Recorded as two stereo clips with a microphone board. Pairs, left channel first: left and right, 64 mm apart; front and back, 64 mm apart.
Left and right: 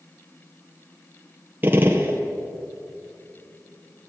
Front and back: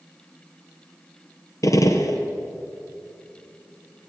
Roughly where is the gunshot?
Ahead right.